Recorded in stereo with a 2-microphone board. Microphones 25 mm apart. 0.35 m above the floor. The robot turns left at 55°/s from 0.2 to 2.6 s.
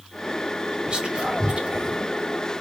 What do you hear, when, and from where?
0.9 s whispering: 35° right (ahead or behind), 1.6 m; by 2.0 s 40° right (ahead or behind), 1.6 m